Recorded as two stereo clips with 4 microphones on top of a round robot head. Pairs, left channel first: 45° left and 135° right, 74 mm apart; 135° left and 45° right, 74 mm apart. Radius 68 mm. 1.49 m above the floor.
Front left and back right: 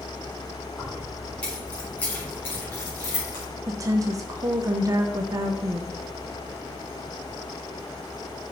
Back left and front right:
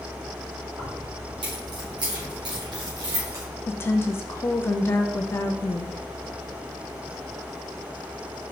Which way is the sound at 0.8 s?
35° right.